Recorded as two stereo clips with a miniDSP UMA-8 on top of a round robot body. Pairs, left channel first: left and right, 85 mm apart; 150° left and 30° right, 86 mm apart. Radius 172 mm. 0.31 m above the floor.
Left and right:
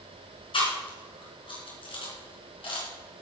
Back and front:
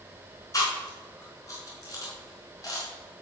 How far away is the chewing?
About 3.5 m.